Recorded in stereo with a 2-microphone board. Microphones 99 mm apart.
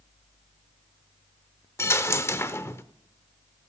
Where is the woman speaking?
No woman speaking in this recording.